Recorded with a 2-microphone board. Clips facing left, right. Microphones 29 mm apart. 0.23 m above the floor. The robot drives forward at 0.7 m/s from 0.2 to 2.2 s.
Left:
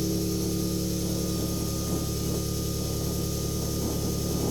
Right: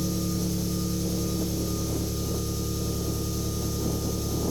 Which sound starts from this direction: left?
An engine running, at 0.0 s.